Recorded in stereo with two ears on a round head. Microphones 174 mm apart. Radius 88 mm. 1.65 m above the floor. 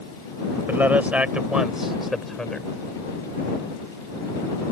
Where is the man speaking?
10° right (ahead or behind); by 2.7 s 5° left (ahead or behind).